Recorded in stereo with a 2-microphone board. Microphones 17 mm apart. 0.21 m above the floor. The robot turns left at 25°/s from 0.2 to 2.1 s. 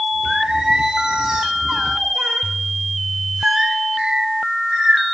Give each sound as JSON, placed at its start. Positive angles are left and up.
{"t": 0.2, "sound": "singing", "azimuth_deg": -30, "distance_m": 4.0}